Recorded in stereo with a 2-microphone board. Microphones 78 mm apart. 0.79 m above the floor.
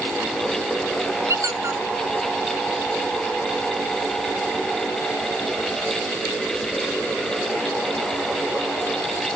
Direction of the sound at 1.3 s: 50° right (ahead or behind).